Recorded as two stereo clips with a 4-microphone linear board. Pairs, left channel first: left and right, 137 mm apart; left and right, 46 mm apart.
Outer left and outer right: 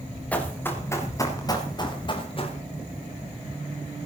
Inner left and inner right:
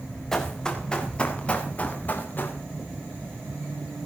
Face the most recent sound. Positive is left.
turn(degrees=45)  # may be behind; listen again after turning